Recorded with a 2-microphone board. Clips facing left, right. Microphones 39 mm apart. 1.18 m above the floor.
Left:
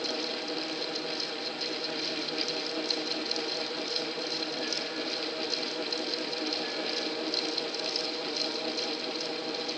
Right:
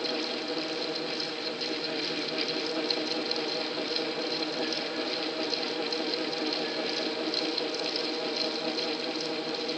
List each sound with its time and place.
Only background noise.